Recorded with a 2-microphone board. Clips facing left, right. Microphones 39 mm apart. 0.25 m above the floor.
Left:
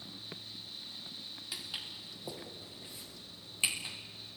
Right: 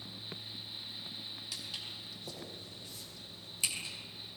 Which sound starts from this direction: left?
Footsteps, at 1.5 s.